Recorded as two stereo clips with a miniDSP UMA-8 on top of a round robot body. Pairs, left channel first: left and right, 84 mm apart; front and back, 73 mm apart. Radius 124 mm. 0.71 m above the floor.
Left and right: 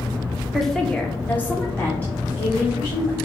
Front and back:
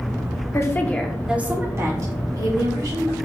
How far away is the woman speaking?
About 1.3 m.